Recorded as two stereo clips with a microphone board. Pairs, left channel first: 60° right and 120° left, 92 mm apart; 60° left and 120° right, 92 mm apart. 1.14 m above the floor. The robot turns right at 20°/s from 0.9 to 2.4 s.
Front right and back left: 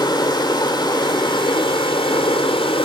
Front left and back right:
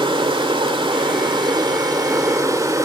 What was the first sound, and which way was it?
Running water, 100° right.